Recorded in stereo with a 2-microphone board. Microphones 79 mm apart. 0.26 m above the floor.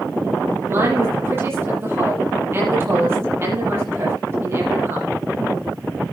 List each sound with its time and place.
0.7 s a woman speaking: 30° right (ahead or behind), 7 m